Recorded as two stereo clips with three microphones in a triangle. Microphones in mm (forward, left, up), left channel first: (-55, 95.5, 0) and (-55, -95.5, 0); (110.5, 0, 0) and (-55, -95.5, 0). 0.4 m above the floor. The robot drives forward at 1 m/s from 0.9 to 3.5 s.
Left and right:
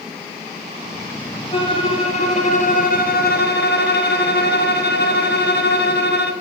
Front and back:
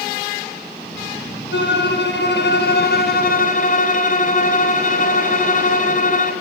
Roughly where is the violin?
Ahead left.